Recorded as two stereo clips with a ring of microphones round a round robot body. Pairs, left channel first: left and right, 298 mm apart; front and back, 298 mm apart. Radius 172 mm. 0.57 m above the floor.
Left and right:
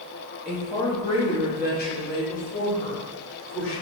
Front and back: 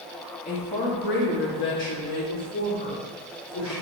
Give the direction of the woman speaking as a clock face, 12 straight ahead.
12 o'clock.